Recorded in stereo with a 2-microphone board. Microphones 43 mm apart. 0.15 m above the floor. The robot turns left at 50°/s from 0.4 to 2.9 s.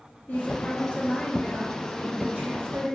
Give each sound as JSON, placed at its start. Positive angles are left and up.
{"t": 0.3, "sound": "a woman speaking", "azimuth_deg": 55, "distance_m": 1.9}